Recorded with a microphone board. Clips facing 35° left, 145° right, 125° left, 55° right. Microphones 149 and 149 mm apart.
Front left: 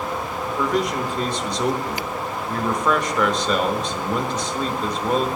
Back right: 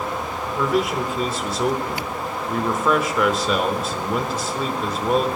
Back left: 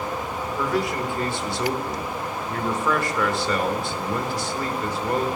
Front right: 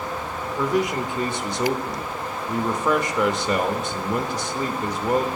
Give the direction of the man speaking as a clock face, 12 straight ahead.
2 o'clock.